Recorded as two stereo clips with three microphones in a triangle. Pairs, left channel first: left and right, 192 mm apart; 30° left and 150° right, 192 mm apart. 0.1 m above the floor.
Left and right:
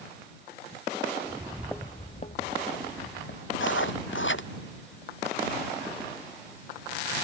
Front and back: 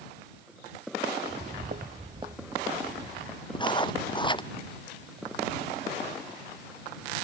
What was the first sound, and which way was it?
Footsteps, 145° right.